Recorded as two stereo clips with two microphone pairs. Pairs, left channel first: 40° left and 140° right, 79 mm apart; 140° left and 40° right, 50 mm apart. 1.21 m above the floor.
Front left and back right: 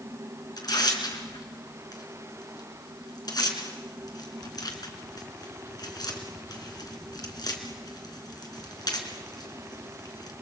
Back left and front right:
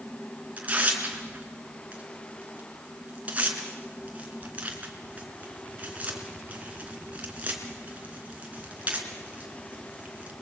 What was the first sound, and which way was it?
Tearing paper, 15° left.